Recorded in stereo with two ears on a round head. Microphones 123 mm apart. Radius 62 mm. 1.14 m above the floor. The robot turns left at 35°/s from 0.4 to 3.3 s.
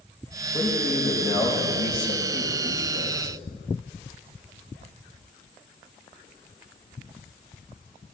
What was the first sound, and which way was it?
A man speaking, 150° left.